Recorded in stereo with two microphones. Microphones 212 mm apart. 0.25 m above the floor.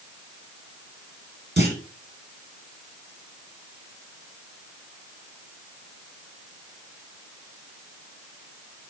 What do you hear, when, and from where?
1.6 s a clunk: 50° right (ahead or behind), 2.5 m